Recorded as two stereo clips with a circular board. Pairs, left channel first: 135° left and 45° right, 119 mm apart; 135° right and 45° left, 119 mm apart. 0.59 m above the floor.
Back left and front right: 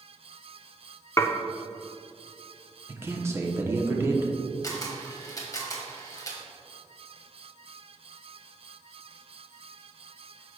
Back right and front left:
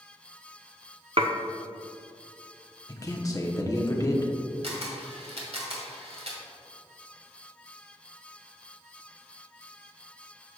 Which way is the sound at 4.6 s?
75° left.